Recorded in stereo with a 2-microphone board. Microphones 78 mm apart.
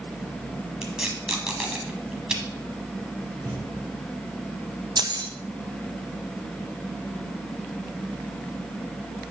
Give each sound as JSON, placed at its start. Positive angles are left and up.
{"t": 0.8, "sound": "tape being pulled", "side_deg": -10, "distance_m": 1.3}
{"t": 3.4, "sound": "a thud", "side_deg": -35, "distance_m": 3.5}
{"t": 5.0, "sound": "keys jangling", "side_deg": -60, "distance_m": 0.7}